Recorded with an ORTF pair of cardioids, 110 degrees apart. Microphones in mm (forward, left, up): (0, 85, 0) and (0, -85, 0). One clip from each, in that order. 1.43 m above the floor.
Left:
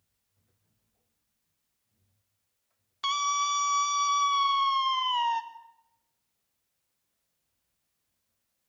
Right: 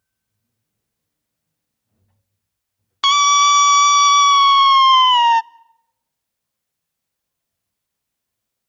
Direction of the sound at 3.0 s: 70° right.